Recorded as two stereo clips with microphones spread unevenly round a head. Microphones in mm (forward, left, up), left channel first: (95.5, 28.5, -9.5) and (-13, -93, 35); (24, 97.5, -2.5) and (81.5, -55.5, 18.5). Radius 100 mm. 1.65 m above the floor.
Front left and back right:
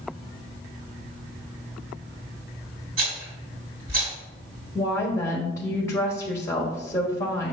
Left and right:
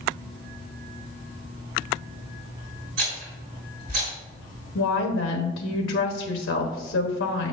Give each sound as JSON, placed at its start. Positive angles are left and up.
{"t": 3.0, "sound": "a rattle", "azimuth_deg": -115, "distance_m": 3.0}
{"t": 4.8, "sound": "a woman speaking", "azimuth_deg": 130, "distance_m": 1.3}